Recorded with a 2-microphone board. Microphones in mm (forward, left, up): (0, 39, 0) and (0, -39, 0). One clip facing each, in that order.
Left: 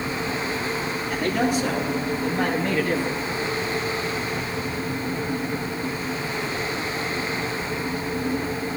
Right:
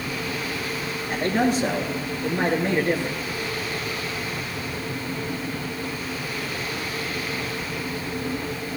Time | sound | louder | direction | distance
1.1 | a man speaking | right 1 dB | 50° right (ahead or behind) | 4 m